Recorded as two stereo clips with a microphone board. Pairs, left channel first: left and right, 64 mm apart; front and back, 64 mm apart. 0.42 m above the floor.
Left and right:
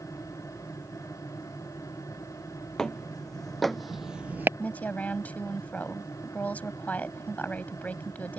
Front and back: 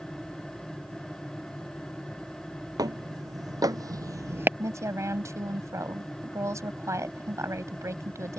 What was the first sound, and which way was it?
Footsteps, 170° left.